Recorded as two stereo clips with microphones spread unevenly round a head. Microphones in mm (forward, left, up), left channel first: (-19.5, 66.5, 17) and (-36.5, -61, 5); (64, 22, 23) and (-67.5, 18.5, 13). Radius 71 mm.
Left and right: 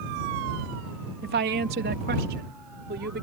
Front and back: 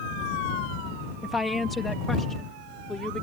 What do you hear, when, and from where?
1.2 s a woman speaking: 90° right; by 3.2 s 85° right